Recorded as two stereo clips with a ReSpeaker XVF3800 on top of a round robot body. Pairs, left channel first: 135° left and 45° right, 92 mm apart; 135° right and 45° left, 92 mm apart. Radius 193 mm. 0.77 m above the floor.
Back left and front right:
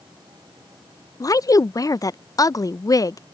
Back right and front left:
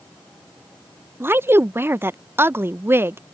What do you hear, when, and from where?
1.2 s a woman speaking: 100° left